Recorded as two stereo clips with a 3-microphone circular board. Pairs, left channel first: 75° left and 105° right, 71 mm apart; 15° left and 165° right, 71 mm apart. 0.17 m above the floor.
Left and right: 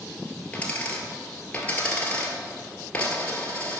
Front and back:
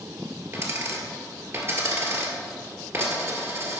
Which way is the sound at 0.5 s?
145° left.